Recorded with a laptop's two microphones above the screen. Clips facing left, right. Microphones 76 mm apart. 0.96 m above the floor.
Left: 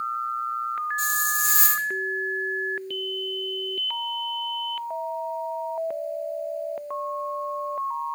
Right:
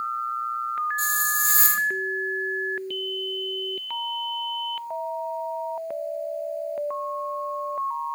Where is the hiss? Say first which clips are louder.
Even; 40° right (ahead or behind), 0.9 m.